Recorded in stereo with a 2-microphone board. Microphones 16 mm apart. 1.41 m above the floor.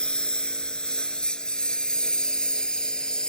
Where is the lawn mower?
80° left; by 3.3 s 60° left (ahead or behind).